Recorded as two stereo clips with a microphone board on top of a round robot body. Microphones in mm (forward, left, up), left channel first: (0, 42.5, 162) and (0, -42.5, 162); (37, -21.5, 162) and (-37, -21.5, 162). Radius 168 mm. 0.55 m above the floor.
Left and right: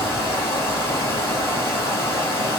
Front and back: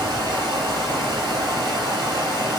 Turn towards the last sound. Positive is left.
turn(degrees=150)